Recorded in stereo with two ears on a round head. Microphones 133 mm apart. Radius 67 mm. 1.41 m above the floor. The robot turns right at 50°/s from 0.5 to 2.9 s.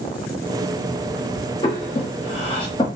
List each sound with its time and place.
1.6 s breathing: 35° left (ahead or behind), 0.9 m; by 2.9 s 30° left (ahead or behind), 0.9 m